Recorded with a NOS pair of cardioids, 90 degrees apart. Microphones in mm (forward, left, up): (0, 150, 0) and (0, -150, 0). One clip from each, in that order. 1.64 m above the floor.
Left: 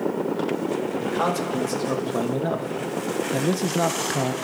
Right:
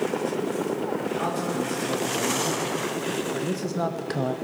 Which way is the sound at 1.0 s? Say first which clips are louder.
Left 3 dB; 60° left.